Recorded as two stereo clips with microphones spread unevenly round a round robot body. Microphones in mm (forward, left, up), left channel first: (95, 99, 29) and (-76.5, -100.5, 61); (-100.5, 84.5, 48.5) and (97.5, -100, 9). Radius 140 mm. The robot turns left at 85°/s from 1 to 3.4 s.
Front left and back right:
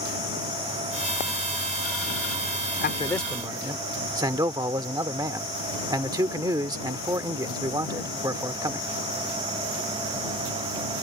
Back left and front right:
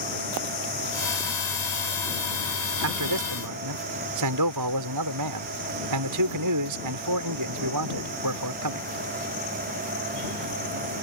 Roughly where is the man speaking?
Ahead.